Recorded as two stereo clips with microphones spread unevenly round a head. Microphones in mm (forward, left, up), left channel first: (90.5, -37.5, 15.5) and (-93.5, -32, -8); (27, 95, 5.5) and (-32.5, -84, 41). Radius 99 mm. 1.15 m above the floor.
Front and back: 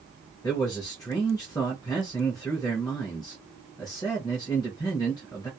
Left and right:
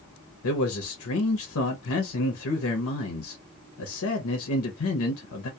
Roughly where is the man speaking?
Left.